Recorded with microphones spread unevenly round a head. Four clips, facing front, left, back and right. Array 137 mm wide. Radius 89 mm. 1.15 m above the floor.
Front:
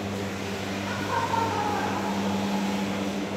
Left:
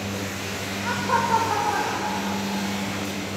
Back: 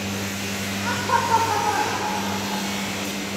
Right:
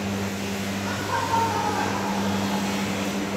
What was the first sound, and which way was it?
Laughter, 155° left.